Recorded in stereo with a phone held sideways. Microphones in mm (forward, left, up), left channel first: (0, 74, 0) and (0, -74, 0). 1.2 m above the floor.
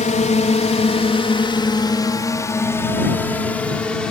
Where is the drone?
55° left (ahead or behind); by 4.1 s 5° left (ahead or behind).